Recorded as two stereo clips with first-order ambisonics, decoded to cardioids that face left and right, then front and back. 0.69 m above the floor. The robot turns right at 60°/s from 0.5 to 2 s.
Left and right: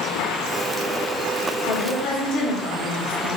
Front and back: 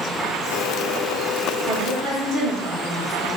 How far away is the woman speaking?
About 1.4 m.